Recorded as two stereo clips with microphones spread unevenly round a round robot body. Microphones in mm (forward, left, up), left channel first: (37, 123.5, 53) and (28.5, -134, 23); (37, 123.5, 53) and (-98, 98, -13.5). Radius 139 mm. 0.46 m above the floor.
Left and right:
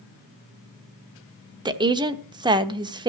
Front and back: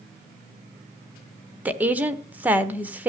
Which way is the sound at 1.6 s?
145° right.